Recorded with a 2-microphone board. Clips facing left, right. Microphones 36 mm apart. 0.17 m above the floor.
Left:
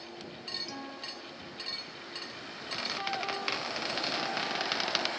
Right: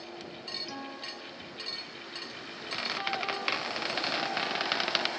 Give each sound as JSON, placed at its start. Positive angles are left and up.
{"t": 0.7, "sound": "a guitar", "side_deg": -10}
{"t": 2.7, "sound": "a squeak", "side_deg": -10}